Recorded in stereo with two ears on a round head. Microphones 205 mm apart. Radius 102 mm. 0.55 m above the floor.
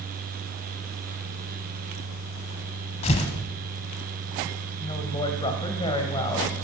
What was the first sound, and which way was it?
Tearing paper, 30° left (ahead or behind).